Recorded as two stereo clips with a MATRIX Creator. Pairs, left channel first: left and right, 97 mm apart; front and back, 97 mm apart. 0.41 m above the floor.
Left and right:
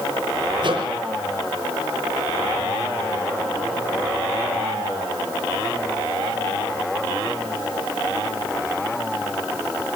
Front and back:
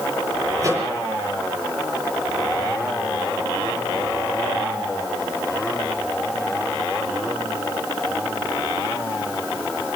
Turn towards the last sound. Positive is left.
turn(degrees=-125)